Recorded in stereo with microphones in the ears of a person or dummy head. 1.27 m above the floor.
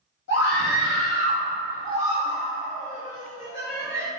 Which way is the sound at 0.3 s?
65° left (ahead or behind).